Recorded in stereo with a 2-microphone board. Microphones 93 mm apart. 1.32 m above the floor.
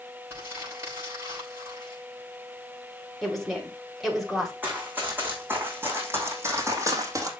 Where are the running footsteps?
15° right (ahead or behind), 5 m; by 7.3 s 35° right (ahead or behind), 2.5 m.